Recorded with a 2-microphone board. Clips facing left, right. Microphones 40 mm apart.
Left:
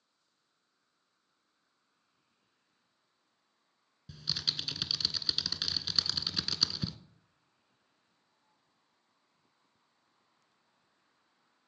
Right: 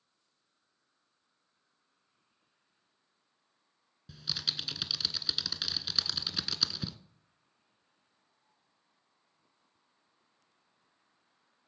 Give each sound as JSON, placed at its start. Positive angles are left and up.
{"t": 4.1, "sound": "typing on a keyboard", "side_deg": -5, "distance_m": 0.6}